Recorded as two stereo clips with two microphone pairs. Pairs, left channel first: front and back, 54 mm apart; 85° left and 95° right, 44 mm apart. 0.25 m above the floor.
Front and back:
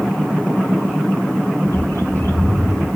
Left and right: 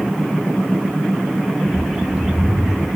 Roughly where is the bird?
Ahead.